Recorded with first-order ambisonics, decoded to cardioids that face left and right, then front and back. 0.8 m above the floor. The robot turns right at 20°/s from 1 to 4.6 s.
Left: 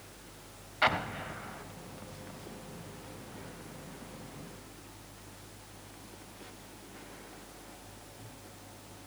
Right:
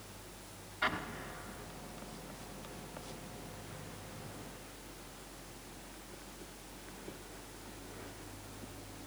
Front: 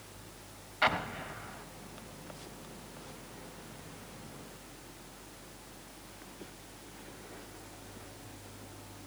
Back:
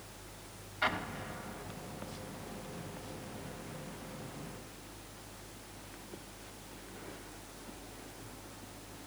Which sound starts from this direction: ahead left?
An explosion, at 0.8 s.